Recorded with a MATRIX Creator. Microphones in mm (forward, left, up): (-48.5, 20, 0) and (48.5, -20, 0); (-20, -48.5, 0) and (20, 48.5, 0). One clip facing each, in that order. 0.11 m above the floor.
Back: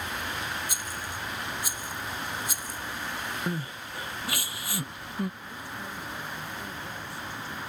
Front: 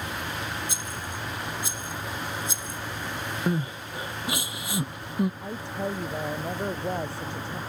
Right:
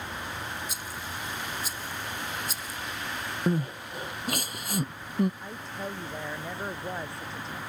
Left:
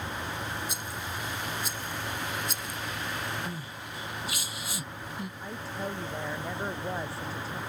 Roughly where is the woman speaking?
Ahead.